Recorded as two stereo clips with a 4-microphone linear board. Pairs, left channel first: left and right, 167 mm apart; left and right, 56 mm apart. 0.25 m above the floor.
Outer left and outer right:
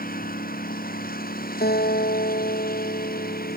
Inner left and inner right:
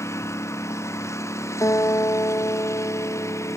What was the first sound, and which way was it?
A lawn mower, 60° left (ahead or behind).